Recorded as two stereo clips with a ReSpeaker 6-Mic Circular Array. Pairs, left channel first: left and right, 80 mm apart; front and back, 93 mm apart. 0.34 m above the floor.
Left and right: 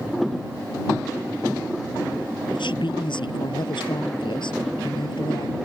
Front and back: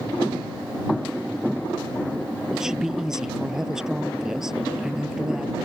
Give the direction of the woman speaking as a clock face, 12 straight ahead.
9 o'clock.